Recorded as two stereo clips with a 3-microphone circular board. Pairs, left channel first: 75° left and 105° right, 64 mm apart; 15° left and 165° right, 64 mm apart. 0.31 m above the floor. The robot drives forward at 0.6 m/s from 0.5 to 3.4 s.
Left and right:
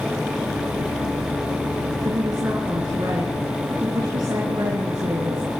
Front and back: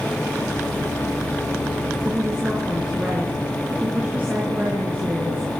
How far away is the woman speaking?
About 4.5 m.